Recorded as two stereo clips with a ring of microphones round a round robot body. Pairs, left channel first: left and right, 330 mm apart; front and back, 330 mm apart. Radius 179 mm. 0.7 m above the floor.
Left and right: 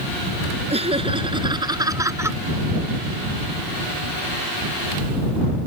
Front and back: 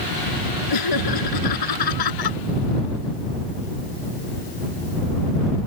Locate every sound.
0.7 s laughter: 20° right; by 2.4 s 5° right